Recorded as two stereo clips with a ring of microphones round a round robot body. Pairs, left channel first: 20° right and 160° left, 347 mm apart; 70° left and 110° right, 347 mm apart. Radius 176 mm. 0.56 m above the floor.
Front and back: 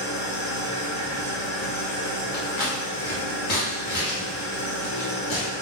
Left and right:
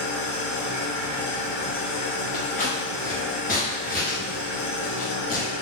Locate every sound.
0.0 s an engine running: 35° left, 1.4 m
2.3 s scissors: 5° left, 1.1 m